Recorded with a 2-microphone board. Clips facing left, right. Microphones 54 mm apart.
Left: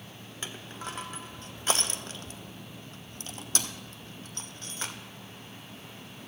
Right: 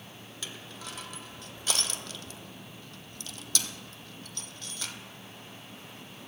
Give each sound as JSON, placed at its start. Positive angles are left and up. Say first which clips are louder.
{"t": 0.4, "sound": "crushing", "louder": "left 4 dB", "side_deg": 35, "distance_m": 1.0}